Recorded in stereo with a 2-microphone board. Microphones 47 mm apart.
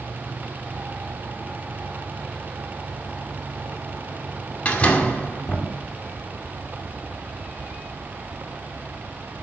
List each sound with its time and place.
4.7 s a door slam: 25° left (ahead or behind), 1.9 m